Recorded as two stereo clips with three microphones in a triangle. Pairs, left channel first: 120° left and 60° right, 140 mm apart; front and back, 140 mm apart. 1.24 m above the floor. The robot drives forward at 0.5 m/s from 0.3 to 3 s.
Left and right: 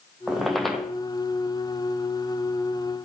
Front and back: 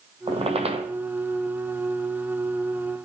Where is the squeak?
150° right, 1.9 m; by 0.9 s 155° right, 2 m.